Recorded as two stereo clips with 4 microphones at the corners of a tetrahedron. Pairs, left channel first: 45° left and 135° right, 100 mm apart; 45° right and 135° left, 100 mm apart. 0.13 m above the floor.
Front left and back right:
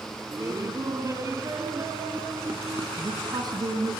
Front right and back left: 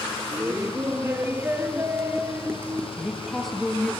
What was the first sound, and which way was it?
Laughter, 170° right.